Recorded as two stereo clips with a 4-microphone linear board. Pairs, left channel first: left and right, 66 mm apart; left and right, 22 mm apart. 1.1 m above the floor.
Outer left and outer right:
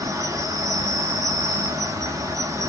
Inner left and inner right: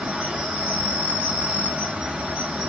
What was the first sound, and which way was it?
An insect, 60° right (ahead or behind).